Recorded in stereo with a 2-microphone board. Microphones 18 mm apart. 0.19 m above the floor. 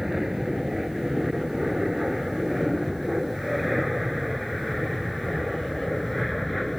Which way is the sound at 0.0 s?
15° right (ahead or behind).